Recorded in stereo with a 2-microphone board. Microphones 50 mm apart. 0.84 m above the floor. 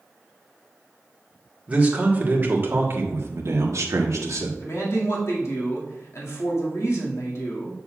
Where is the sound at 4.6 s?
65° left (ahead or behind), 1.9 m.